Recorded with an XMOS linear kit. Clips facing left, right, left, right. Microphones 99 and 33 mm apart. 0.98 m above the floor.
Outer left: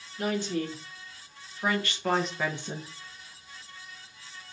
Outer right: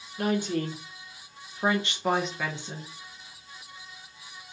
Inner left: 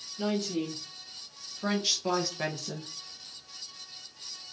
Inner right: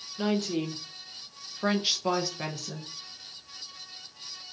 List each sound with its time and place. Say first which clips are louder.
0.2 s a woman speaking: outer right 2 dB, inner right 2 dB; 55° right (ahead or behind), 1.3 m; by 2.9 s 25° left (ahead or behind), 0.7 m